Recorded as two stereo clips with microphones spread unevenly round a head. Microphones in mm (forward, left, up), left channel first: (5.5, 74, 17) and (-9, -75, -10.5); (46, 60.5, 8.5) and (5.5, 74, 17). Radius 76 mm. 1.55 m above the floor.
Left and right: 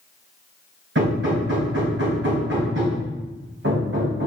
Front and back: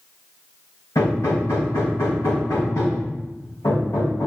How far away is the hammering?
About 4 m.